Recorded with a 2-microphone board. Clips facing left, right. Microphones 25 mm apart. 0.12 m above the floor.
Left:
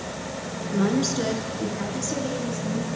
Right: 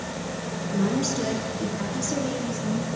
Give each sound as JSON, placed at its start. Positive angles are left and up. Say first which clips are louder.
{"t": 0.7, "sound": "a woman speaking", "louder": "left 2 dB", "side_deg": 25, "distance_m": 1.8}